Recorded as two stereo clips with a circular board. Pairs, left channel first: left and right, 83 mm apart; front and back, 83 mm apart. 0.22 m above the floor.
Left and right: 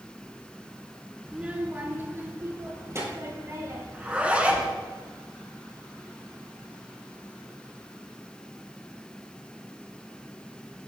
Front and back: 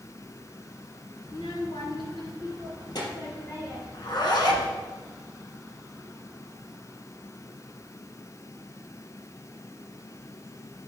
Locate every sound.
1.2 s a child speaking: 10° right, 1.5 m; by 3.8 s 35° right, 5 m
3.9 s a zipper: 15° right, 1.6 m